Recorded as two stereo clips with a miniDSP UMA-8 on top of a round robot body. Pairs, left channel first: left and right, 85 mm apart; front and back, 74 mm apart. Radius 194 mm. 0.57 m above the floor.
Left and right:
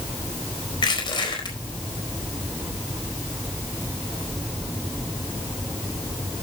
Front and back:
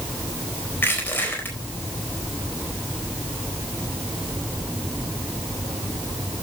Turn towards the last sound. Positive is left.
turn(degrees=65)